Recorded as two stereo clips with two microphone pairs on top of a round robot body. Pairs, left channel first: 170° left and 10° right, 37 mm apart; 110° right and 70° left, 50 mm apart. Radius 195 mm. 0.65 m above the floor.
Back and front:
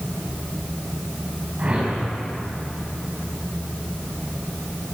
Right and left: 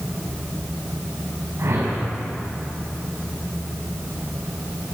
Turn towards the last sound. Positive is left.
turn(degrees=45)